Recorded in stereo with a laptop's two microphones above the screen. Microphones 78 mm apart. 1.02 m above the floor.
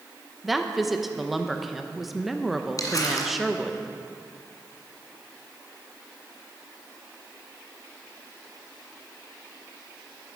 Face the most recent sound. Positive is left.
turn(degrees=50)  # may be behind; listen again after turning